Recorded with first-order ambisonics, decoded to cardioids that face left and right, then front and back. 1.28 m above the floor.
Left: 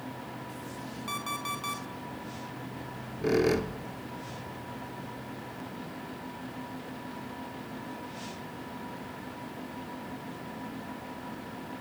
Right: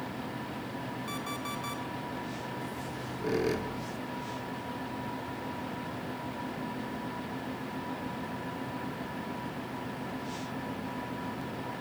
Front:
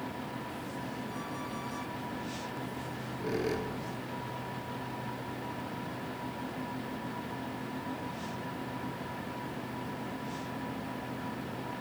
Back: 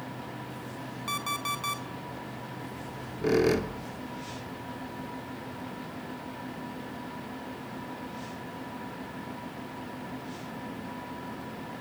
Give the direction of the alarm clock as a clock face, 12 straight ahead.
7 o'clock.